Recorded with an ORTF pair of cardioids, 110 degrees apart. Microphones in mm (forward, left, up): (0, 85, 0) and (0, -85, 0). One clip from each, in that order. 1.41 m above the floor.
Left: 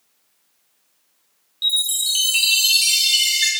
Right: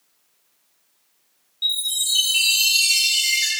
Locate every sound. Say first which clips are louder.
1.6 s a chime: left 3 dB; 40° left, 3 m